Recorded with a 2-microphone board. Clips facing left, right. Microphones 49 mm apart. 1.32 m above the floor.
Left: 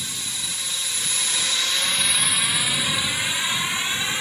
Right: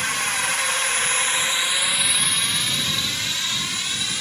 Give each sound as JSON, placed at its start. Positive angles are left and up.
{"t": 0.0, "sound": "a drone", "side_deg": -65}